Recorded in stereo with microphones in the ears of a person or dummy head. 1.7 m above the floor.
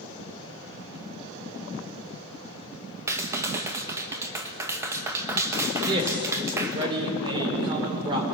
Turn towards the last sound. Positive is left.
turn(degrees=-25)  # may be behind; listen again after turning